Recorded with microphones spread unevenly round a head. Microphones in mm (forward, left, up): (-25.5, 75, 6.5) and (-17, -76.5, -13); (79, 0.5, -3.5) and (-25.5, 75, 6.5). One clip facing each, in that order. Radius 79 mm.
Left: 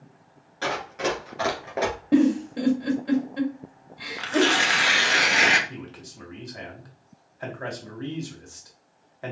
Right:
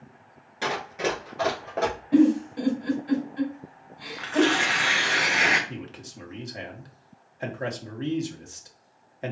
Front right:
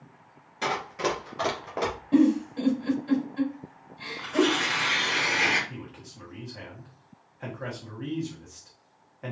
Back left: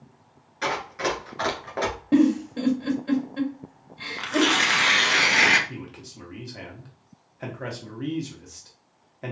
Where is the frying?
I don't hear frying.